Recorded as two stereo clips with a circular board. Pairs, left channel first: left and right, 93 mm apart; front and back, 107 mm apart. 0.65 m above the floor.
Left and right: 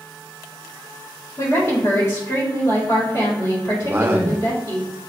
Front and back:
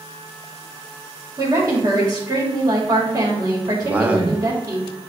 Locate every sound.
1.4 s a woman speaking: 135° left, 1.6 m
3.8 s a man speaking: 120° right, 0.5 m